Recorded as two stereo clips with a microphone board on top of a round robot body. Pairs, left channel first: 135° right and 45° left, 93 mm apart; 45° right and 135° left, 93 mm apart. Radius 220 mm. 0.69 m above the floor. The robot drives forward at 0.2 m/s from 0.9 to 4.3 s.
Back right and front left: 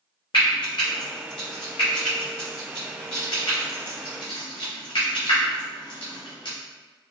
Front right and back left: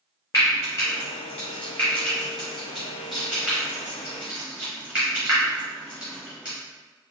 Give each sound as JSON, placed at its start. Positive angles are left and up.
{"t": 0.3, "sound": "frying", "azimuth_deg": -100, "distance_m": 0.6}